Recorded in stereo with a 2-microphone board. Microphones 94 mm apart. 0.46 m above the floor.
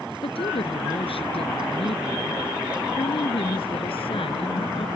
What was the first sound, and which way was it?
A woman speaking, 80° left.